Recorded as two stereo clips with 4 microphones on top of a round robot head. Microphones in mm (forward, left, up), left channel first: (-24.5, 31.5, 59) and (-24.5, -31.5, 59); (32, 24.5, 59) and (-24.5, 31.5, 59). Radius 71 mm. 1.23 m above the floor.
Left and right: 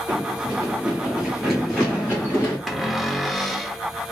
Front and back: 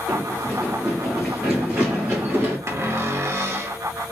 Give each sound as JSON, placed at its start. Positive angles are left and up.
{"t": 0.1, "sound": "running footsteps", "azimuth_deg": -60, "distance_m": 1.4}
{"t": 2.7, "sound": "a cupboard door", "azimuth_deg": 180, "distance_m": 0.8}